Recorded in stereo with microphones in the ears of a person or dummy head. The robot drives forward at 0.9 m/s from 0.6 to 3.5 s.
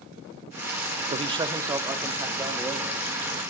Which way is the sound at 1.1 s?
30° right (ahead or behind).